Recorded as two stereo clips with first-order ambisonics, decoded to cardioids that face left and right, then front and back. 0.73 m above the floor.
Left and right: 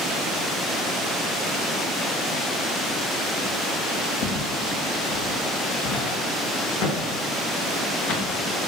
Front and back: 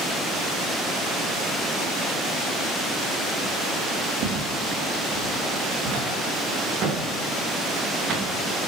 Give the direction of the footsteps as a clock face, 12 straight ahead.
8 o'clock.